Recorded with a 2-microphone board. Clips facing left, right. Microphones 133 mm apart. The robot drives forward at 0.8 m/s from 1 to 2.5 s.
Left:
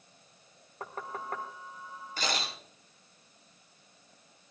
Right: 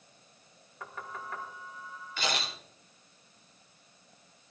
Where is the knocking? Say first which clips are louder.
Left 3 dB; 40° left (ahead or behind), 1.7 m; by 1.4 s 50° left (ahead or behind), 1.4 m.